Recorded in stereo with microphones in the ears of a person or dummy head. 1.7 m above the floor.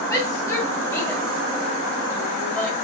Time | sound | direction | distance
0.1 | a shout | 20° left (ahead or behind) | 4.5 m